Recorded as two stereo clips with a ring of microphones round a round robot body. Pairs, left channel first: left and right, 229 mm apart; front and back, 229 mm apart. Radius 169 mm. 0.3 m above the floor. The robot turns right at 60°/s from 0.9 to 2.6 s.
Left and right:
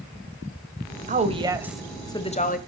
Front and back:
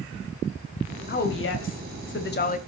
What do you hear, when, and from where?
1.1 s a woman speaking: 40° right, 1.5 m; by 2.6 s 45° left, 1.5 m